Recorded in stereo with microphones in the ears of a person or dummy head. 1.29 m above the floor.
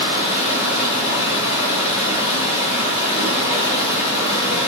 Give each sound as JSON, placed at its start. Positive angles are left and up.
{"t": 0.0, "sound": "running water", "side_deg": 35, "distance_m": 0.9}